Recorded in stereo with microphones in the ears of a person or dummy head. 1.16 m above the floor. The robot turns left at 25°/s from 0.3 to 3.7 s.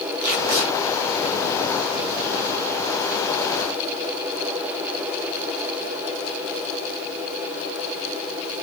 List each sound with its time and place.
0.2 s tape being pulled: 70° right (ahead or behind), 6 m; by 0.7 s 60° right (ahead or behind), 6 m